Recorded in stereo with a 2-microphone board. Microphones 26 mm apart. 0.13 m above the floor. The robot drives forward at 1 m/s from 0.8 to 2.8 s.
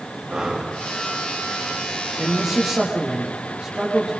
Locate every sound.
0.3 s breathing: 50° right (ahead or behind), 8 m
2.2 s a man speaking: 35° right (ahead or behind), 6 m; by 4.1 s 40° right (ahead or behind), 5.5 m